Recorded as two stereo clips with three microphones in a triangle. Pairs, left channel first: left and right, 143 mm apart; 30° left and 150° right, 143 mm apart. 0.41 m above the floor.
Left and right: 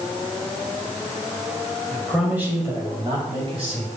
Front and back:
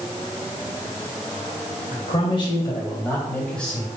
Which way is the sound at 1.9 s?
5° left.